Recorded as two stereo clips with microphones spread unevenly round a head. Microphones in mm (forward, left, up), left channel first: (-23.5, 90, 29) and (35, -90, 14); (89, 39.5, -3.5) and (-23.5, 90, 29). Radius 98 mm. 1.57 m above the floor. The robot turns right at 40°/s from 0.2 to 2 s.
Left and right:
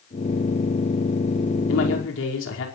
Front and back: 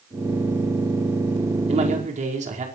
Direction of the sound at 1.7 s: 120° left.